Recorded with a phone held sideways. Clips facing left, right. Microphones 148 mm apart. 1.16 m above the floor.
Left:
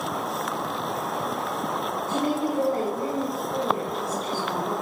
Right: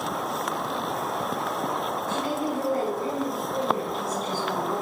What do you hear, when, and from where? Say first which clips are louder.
2.1 s a woman speaking: left 4 dB; 50° left (ahead or behind), 1.6 m; by 4.7 s 55° left (ahead or behind), 4.5 m